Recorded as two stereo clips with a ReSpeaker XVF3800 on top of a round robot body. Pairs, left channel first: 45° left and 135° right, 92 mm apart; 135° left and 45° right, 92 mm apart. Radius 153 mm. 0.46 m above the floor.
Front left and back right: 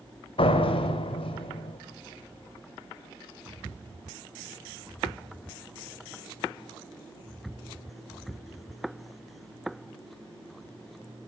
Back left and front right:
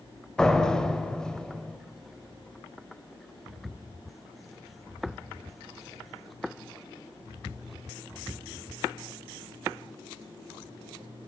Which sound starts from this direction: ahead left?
A door slam, at 0.4 s.